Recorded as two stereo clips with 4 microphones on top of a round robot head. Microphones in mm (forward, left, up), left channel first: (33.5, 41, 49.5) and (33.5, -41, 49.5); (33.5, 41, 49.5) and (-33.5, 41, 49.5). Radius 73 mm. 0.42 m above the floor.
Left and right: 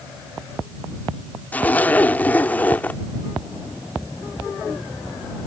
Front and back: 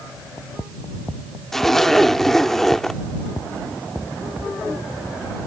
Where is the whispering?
No whispering in this recording.